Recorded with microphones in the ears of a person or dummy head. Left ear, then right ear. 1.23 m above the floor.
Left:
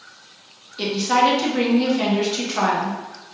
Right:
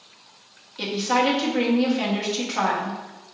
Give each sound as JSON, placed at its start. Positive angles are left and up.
{"t": 0.8, "sound": "a woman speaking", "side_deg": 0, "distance_m": 1.1}